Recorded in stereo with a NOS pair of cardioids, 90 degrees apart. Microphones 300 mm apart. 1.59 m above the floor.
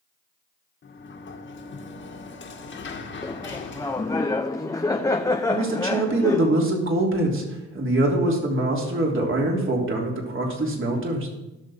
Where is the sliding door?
40° left, 1.8 m.